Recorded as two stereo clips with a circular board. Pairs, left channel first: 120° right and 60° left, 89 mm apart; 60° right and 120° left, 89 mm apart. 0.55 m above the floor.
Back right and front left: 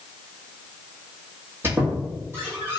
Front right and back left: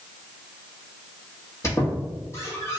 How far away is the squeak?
About 1.5 m.